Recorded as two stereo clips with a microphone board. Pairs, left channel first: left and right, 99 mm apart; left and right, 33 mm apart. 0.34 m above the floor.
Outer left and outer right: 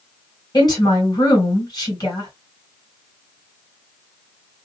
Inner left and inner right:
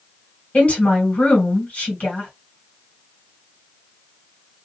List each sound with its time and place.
0.5 s a woman speaking: 40° left (ahead or behind), 2 m